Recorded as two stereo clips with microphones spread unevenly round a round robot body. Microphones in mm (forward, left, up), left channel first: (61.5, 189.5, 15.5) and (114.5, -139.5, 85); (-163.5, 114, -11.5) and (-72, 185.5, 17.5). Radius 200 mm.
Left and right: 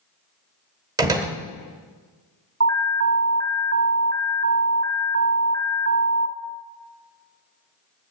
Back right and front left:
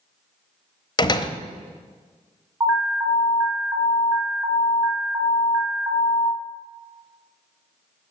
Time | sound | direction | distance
1.0 | a door slam | 165° right | 1.0 m
2.6 | an alarm | 40° right | 1.3 m